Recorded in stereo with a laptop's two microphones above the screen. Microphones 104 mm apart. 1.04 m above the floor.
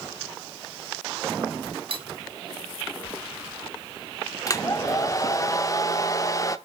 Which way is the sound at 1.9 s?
60° right (ahead or behind).